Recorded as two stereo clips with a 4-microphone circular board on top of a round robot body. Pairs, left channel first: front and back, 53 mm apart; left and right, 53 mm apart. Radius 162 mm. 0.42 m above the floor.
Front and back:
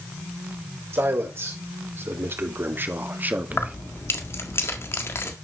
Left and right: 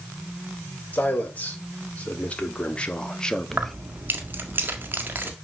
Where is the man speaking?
150° left, 3.5 m; by 3.8 s 175° left, 1.4 m.